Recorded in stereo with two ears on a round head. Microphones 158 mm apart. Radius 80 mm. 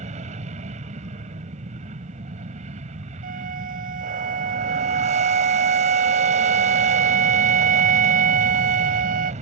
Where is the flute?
50° right (ahead or behind).